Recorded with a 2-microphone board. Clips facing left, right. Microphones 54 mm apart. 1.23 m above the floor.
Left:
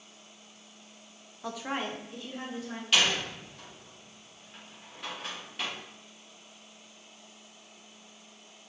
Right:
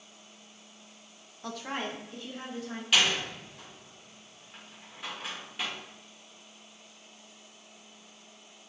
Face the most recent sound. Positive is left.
turn(degrees=-5)  # may be behind; listen again after turning